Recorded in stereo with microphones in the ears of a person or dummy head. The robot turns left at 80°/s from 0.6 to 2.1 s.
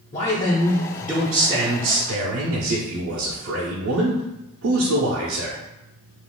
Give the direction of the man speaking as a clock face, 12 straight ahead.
11 o'clock.